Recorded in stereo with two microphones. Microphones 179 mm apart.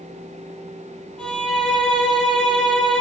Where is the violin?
5° left (ahead or behind), 4.5 m.